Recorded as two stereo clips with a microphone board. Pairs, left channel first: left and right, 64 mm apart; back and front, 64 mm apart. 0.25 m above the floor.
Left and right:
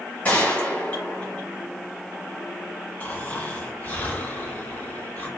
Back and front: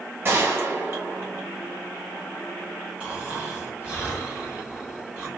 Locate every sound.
0.2 s a gunshot: 35° left, 1.7 m
3.0 s snoring: 50° left, 1.9 m